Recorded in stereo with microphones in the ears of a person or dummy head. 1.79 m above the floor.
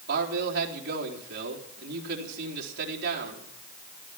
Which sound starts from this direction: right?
A man speaking, at 0.1 s.